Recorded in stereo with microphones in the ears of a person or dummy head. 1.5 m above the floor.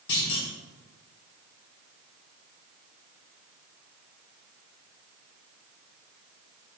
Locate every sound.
0.1 s a clunk: 55° left (ahead or behind), 2.0 m